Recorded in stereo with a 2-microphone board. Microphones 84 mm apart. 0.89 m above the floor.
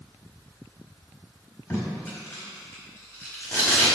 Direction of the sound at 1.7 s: 30° left (ahead or behind).